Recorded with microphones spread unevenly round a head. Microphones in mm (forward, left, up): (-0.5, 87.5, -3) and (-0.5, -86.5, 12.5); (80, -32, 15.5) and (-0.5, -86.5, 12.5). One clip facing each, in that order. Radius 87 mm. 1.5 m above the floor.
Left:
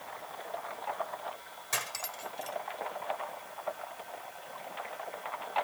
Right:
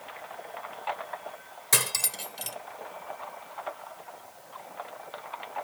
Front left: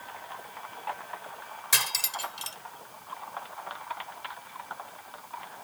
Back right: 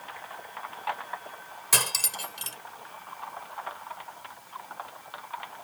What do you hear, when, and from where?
1.7 s cutlery clinking: 105° right